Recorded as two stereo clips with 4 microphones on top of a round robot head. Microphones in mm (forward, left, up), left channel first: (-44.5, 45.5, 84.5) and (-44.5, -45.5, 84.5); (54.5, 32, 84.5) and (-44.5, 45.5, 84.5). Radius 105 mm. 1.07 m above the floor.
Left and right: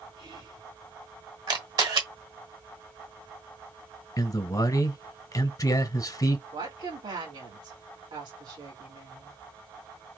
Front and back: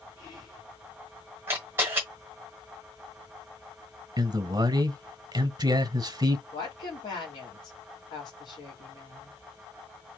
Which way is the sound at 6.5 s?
55° right.